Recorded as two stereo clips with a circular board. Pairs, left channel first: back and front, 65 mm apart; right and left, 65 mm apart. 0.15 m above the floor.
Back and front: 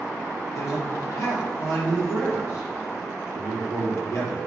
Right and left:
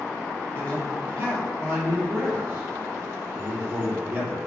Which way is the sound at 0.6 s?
145° left.